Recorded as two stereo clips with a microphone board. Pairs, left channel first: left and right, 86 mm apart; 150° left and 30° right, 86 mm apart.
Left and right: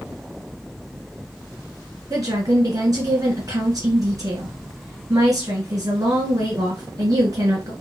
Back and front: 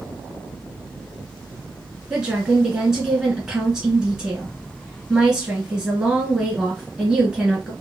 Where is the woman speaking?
110° right, 1.5 m.